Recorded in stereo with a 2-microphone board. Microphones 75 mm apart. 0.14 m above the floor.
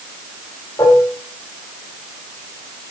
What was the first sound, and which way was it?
Dishes clattering, 55° left (ahead or behind).